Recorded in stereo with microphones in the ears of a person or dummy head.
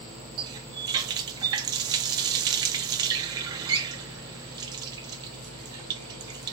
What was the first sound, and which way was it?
A running tap, 20° right (ahead or behind).